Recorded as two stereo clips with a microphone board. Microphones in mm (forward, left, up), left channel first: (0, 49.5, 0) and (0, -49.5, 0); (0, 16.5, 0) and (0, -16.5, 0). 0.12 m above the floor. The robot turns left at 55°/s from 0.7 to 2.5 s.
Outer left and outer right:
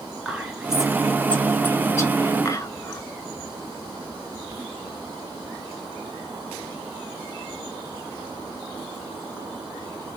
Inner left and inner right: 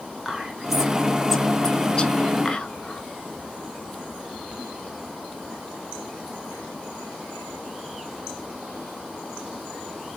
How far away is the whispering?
About 1.2 m.